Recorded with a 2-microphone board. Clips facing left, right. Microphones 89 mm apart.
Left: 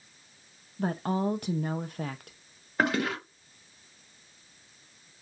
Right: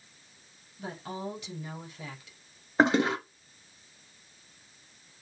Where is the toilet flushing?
20° right (ahead or behind), 0.9 m.